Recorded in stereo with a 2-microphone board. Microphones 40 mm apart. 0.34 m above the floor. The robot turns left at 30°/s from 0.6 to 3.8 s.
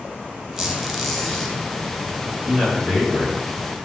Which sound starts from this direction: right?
A man speaking, at 2.5 s.